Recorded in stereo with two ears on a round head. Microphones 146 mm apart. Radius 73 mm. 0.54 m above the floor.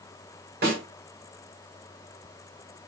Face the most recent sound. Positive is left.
turn(degrees=-65)  # may be behind; listen again after turning